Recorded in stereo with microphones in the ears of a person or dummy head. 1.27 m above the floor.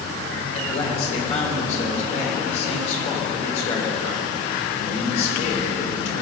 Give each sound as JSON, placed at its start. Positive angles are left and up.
{"t": 0.5, "sound": "a man speaking", "side_deg": 40, "distance_m": 4.5}